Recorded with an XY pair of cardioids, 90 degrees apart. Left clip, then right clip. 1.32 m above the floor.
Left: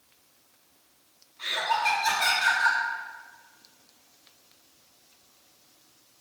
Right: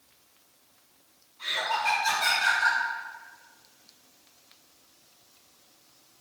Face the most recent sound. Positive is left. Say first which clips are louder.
# left 2 dB
turn(degrees=65)